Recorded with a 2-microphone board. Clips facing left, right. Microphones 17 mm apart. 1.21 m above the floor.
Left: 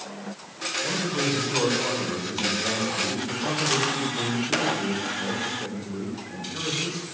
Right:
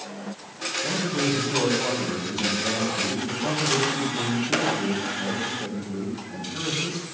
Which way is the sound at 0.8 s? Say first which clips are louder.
Right 1 dB; 15° left (ahead or behind).